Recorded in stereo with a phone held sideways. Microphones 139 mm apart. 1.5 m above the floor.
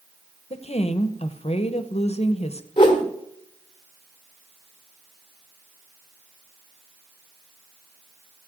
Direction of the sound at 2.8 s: 35° left (ahead or behind).